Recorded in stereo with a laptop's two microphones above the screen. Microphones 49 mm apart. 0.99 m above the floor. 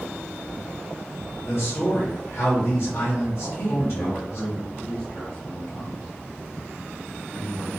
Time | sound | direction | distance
1.4 | a man speaking | 60° left (ahead or behind) | 1.1 m
3.4 | a man speaking | 20° left (ahead or behind) | 0.9 m